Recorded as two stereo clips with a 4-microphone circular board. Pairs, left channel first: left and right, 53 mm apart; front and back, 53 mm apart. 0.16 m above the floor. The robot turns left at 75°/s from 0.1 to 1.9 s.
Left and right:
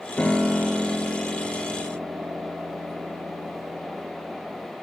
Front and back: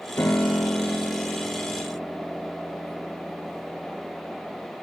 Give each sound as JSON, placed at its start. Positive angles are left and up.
{"t": 0.2, "sound": "a piano", "azimuth_deg": 25, "distance_m": 1.0}